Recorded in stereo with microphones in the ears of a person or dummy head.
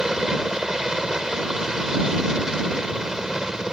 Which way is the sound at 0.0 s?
5° left (ahead or behind).